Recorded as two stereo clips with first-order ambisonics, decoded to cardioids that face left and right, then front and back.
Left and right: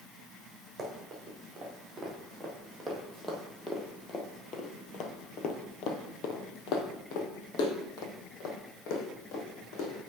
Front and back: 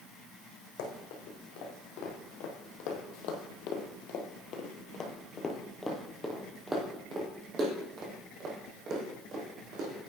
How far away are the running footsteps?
About 2.5 m.